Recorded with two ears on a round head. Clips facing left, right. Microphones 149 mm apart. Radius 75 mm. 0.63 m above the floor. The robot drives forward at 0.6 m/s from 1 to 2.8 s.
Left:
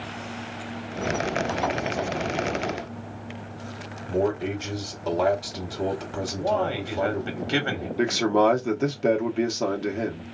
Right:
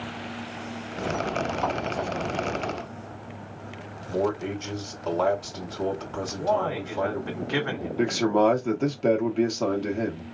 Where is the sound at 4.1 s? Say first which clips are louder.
Left 2 dB; 15° left (ahead or behind), 2.0 m.